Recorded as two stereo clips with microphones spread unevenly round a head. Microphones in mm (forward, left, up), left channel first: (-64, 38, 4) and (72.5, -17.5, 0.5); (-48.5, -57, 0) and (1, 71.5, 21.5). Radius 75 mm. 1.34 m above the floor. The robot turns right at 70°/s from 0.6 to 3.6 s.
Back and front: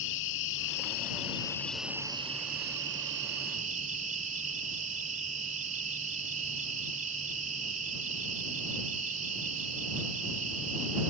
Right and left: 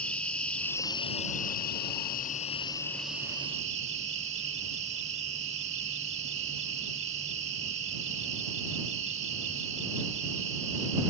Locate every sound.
0.0 s an insect: 165° left; by 11.1 s 15° left